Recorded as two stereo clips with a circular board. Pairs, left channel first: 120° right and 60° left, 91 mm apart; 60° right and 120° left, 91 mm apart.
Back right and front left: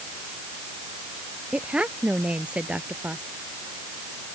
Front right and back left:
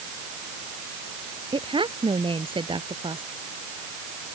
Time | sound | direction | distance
1.5 | a woman speaking | 140° left | ?